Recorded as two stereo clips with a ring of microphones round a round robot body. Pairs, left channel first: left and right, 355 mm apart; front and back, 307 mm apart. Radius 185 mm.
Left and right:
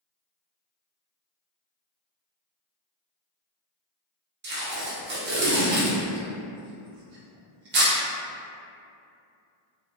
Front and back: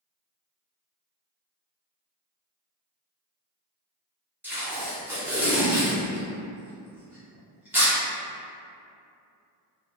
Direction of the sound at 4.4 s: 100° right.